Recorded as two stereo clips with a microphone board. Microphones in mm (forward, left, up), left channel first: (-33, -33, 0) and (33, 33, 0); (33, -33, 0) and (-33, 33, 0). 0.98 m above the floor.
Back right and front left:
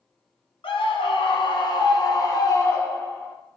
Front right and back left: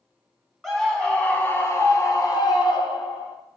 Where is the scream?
135° right, 1.4 m; by 3.4 s 70° right, 1.6 m.